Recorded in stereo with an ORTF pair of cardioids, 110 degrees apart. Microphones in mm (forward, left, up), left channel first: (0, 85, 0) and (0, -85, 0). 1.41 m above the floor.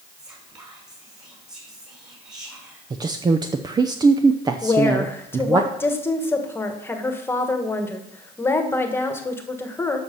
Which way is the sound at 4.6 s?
15° left.